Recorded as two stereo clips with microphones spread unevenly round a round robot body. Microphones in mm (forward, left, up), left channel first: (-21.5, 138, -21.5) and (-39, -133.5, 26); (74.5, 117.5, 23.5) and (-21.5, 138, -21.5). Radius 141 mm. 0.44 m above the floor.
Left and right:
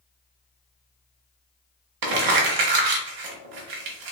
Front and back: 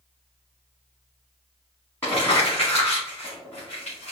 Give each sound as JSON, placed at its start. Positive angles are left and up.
{"t": 2.0, "sound": "crumpling", "azimuth_deg": -100, "distance_m": 1.0}